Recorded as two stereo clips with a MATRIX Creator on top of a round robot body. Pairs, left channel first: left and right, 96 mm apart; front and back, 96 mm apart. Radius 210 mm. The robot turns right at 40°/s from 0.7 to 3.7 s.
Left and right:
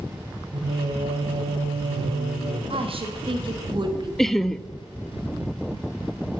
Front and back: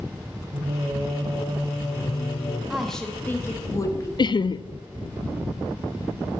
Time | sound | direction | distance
0.5 | singing | 125° right | 0.8 m
2.7 | a woman speaking | 95° right | 1.4 m
4.2 | laughter | 5° left | 0.5 m